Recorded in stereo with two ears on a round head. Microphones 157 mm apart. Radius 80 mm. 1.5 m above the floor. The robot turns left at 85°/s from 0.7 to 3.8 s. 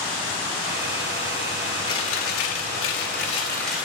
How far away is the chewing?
About 3 m.